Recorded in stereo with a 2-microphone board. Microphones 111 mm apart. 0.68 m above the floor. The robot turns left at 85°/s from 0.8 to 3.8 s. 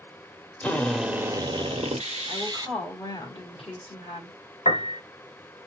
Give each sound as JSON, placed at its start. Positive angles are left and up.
{"t": 0.6, "sound": "a drill", "azimuth_deg": 10, "distance_m": 0.9}
{"t": 2.3, "sound": "a woman speaking", "azimuth_deg": -150, "distance_m": 1.9}
{"t": 4.7, "sound": "a piano", "side_deg": 75, "distance_m": 0.6}